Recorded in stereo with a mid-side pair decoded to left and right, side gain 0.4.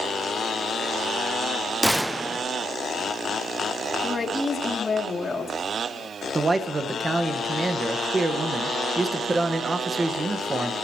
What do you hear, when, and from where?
1.8 s a gunshot: 5° right, 0.5 m
4.0 s a woman speaking: 30° left, 3 m
6.3 s a man speaking: 30° right, 1.5 m